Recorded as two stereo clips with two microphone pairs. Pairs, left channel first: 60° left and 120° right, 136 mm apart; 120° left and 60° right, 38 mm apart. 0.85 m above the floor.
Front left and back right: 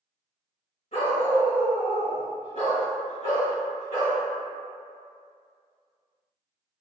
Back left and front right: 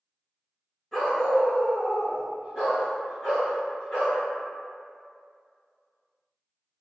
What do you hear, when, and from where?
0.9 s a dog barking: 45° left, 1.3 m; by 4.2 s 60° left, 3 m